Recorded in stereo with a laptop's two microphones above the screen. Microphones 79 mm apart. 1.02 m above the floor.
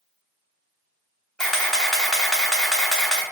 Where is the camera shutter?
5° left (ahead or behind), 0.9 m.